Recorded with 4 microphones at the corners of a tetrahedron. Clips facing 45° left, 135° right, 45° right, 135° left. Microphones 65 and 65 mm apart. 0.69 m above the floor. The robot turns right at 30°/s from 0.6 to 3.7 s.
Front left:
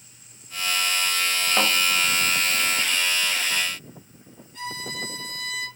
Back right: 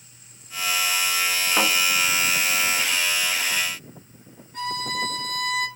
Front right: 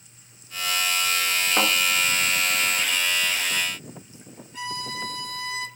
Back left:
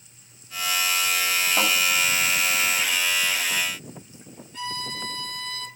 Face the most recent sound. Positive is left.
turn(degrees=-115)